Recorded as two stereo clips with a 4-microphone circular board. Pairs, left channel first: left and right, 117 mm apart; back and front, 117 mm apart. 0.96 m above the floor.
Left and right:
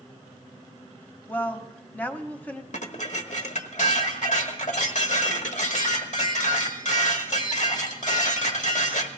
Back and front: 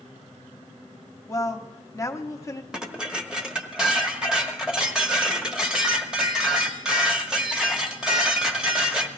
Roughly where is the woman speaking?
Behind left.